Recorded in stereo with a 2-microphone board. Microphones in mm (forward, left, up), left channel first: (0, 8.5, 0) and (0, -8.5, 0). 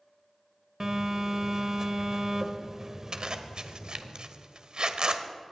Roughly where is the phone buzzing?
Right.